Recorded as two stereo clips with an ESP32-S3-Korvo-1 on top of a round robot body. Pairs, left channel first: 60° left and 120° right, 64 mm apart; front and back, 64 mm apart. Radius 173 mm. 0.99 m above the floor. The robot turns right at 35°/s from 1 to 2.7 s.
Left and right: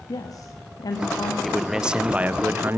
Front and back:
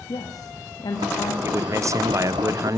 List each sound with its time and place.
0.1 s a woman speaking: 30° left, 1.6 m; by 1.3 s 40° left, 1.6 m
1.4 s a man speaking: 150° left, 0.8 m; by 2.8 s 165° right, 0.8 m